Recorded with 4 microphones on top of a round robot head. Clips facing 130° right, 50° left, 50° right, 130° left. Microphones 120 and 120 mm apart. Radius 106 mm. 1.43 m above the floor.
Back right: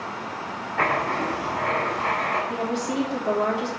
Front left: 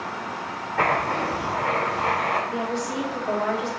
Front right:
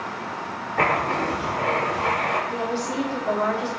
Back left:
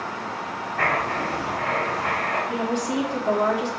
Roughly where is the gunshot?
I don't hear a gunshot.